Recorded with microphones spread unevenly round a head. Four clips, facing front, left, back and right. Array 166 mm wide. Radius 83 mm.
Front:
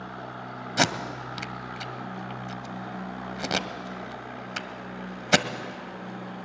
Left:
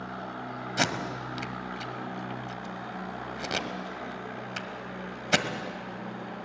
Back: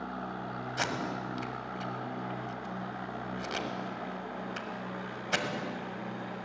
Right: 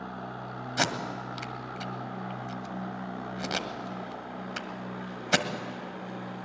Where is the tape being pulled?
5° left, 1.5 m.